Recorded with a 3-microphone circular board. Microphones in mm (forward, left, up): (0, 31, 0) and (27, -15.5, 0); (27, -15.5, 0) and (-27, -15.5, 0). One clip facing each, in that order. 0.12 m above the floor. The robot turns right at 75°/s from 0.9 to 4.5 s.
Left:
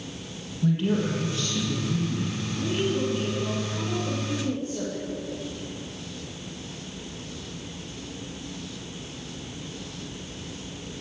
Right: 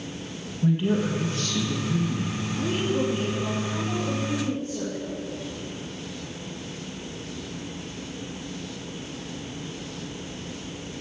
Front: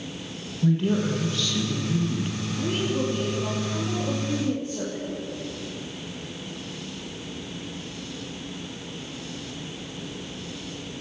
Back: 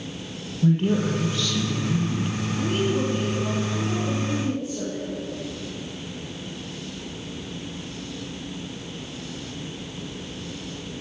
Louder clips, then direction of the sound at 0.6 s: Right 1 dB, back 2 dB; 135° right.